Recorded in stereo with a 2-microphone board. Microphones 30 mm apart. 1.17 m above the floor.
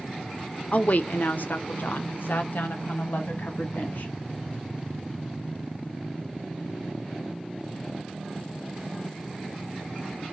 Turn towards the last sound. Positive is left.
turn(degrees=70)  # may be behind; listen again after turning